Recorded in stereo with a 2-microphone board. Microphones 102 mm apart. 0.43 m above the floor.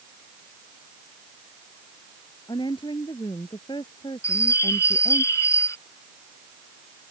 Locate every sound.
2.5 s a woman speaking: 50° left (ahead or behind)
4.2 s a bird: 30° left (ahead or behind)